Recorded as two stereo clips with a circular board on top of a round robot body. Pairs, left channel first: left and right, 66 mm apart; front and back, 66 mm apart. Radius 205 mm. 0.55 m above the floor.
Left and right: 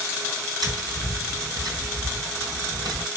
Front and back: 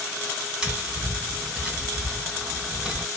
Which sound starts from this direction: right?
Tapping, at 0.6 s.